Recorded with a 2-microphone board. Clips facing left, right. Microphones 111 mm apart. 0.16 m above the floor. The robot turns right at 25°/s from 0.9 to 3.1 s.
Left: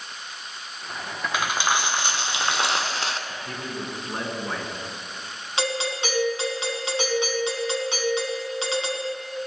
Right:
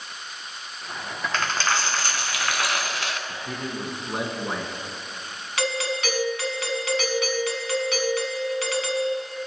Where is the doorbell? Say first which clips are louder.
Even; 25° left (ahead or behind), 1.6 m.